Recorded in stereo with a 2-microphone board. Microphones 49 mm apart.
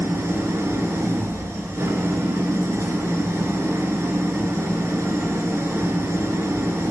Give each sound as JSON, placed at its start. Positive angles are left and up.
{"t": 0.0, "sound": "an engine running", "side_deg": -70, "distance_m": 0.9}